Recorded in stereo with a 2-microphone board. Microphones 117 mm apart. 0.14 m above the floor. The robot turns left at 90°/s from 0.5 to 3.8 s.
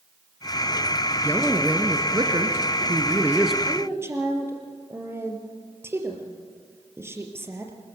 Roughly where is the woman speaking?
Right.